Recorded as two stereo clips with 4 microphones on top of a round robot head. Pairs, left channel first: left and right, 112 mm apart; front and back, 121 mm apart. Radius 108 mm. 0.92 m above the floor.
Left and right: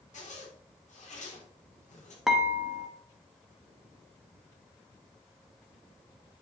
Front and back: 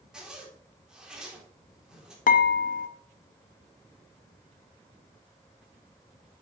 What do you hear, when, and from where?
0.1 s a zipper: 95° left, 3 m
2.3 s dishes clattering: 5° right, 0.8 m